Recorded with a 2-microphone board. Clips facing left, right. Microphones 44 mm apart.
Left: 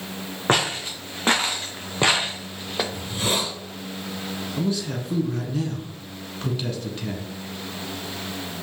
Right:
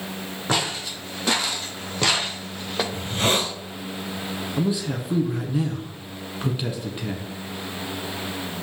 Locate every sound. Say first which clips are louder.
0.5 s footsteps: left 3 dB; 35° left (ahead or behind), 3 m; by 2.8 s 5° right (ahead or behind), 1.1 m
2.9 s a hiss: right 6 dB; 55° right (ahead or behind), 2.5 m
4.6 s a man speaking: right 1 dB; 15° right (ahead or behind), 1.3 m